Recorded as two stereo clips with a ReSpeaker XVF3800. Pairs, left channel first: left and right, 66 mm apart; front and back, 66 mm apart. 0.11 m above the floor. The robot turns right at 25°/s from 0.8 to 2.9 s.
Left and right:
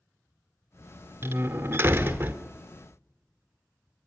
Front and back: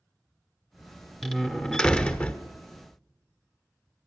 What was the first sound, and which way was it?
A door slam, 80° right.